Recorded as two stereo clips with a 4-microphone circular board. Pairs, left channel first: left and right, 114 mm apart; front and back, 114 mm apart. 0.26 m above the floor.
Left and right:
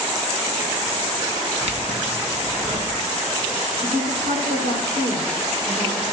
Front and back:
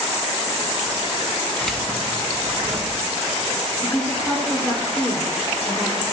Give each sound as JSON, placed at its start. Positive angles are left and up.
{"t": 1.6, "sound": "keys jangling", "azimuth_deg": -80, "distance_m": 1.5}
{"t": 3.8, "sound": "a woman speaking", "azimuth_deg": -70, "distance_m": 7.0}